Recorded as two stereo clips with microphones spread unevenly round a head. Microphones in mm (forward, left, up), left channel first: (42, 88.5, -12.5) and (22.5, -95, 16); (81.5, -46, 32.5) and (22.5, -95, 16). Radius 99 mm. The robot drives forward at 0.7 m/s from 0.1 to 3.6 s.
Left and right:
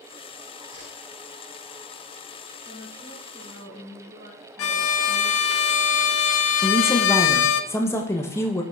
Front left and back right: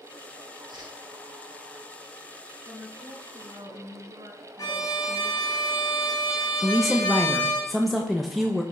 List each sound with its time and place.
0.7 s a whoosh: 115° right, 3 m; by 0.9 s 120° right, 3 m
2.6 s a woman speaking: 160° right, 4 m
4.6 s a violin: 110° left, 0.5 m
6.6 s a woman speaking: 145° left, 1.0 m